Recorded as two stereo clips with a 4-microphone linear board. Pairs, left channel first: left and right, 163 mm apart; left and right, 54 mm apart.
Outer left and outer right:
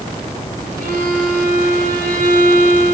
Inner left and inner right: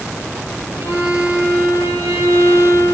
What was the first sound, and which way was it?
A violin, 55° right (ahead or behind).